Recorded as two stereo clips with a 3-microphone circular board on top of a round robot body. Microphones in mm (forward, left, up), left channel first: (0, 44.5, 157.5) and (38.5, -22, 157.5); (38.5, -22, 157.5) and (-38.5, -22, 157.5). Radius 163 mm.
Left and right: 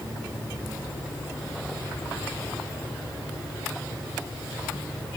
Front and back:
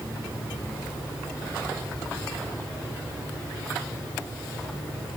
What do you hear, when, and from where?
Only background noise.